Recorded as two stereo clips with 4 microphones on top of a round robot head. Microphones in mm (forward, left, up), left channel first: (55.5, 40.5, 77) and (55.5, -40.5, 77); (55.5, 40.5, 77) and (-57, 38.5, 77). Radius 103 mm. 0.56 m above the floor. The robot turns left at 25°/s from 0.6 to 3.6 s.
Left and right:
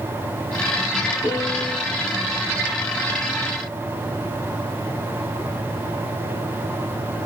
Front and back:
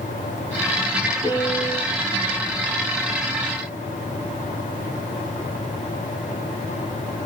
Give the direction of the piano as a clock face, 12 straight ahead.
10 o'clock.